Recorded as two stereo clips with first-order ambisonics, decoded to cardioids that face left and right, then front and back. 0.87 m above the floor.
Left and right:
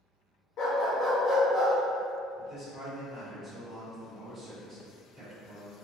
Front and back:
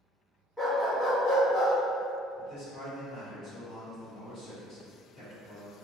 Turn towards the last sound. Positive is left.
turn(degrees=-35)